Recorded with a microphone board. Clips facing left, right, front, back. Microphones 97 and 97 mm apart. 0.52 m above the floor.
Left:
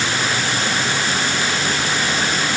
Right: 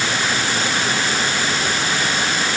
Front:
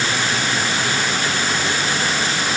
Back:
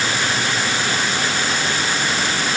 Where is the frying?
No frying in this recording.